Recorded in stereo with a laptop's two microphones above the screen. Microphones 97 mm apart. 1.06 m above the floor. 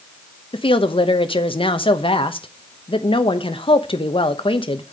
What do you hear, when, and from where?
0.5 s a woman speaking: 65° left (ahead or behind), 0.9 m